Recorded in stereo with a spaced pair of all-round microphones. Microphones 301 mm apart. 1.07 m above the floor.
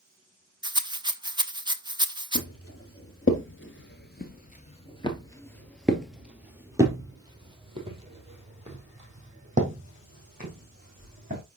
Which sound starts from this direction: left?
Footsteps, at 2.4 s.